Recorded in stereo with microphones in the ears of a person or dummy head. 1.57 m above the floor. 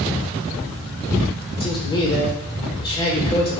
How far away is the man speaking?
About 1.4 m.